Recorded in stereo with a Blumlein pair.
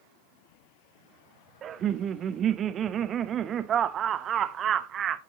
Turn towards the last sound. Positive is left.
turn(degrees=-25)